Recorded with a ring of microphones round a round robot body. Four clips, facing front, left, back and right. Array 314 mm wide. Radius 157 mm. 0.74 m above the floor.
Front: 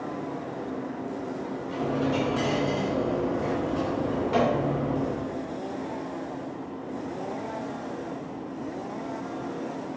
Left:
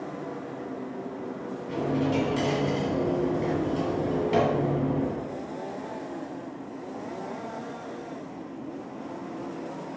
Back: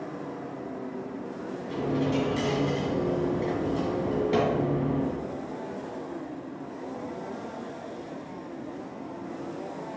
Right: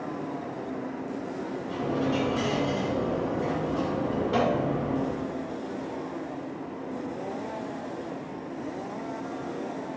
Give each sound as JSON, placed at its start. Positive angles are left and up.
{"t": 1.7, "sound": "a dropped coin", "azimuth_deg": 130, "distance_m": 2.5}